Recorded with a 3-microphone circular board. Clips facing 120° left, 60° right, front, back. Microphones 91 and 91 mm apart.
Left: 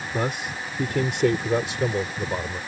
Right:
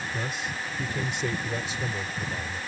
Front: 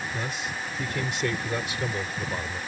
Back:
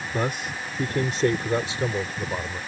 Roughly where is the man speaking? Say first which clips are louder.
Left 9 dB, back 5 dB; behind left.